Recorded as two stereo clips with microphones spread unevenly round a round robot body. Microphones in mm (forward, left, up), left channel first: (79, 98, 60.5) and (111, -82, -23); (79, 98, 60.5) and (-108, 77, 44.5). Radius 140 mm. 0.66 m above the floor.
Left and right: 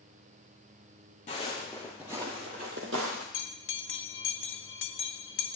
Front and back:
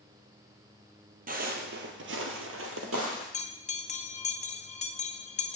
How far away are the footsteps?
About 1.2 m.